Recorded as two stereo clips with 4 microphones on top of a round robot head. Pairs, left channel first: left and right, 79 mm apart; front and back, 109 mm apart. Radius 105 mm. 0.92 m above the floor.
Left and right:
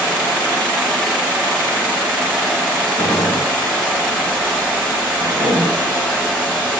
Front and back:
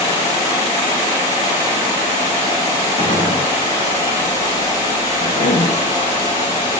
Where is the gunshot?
20° left, 1.9 m.